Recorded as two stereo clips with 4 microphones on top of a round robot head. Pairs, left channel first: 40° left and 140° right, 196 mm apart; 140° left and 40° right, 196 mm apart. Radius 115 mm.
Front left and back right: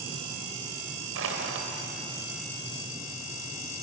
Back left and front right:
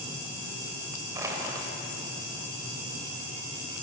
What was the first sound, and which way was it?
Crushing, 115° right.